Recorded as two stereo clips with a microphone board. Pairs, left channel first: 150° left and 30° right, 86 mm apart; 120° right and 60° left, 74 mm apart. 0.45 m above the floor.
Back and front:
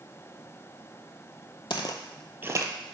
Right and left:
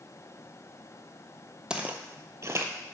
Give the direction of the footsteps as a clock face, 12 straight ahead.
7 o'clock.